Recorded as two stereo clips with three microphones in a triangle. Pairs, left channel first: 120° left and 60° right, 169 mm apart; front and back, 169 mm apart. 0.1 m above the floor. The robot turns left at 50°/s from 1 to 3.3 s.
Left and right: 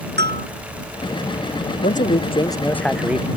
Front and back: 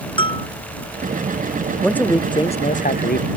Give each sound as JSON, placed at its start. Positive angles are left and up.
{"t": 0.2, "sound": "a bell", "azimuth_deg": -60}
{"t": 1.8, "sound": "a man speaking", "azimuth_deg": 85}